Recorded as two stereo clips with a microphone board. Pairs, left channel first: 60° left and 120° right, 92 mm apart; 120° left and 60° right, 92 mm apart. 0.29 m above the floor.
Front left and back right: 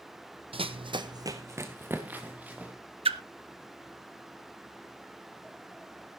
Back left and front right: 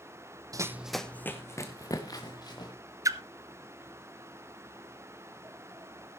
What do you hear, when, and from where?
0.5 s running footsteps: 110° right, 0.8 m; by 2.7 s 165° left, 3.5 m
3.0 s a splash: 115° right, 0.8 m